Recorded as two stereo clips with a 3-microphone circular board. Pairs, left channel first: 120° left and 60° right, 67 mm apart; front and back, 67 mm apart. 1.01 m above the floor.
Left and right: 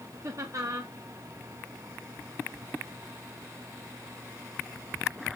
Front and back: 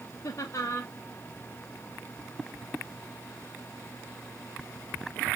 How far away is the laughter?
About 0.8 m.